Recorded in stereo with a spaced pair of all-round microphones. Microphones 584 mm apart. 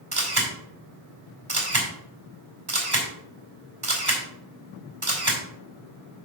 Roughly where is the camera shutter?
Right.